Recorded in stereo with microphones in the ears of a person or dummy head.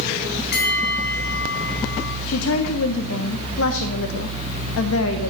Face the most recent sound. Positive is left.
turn(degrees=80)